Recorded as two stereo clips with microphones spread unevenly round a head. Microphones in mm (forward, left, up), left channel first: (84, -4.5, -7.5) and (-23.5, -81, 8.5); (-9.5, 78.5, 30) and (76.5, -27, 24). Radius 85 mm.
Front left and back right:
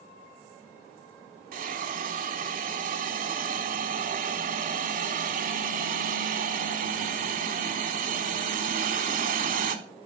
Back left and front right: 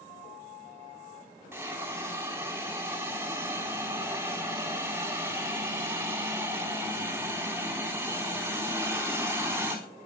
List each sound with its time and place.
1.5 s a hiss: 130° right, 3.5 m